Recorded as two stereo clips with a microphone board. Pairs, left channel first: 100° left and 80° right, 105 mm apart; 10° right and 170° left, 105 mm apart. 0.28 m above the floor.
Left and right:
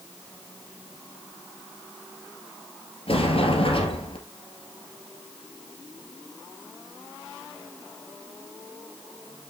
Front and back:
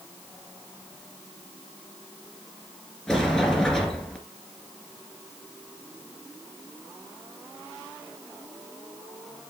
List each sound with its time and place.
3.1 s a sliding door: 75° left, 2.5 m